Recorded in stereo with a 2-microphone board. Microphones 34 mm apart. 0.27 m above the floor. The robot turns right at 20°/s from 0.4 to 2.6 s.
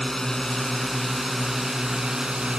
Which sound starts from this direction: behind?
A drone, at 0.0 s.